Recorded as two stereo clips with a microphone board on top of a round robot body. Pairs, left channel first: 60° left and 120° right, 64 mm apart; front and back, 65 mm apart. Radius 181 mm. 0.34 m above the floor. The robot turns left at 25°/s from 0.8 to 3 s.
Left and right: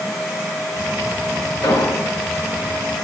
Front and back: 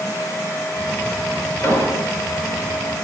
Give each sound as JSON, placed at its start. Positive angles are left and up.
{"t": 1.6, "sound": "an explosion", "azimuth_deg": 50, "distance_m": 4.5}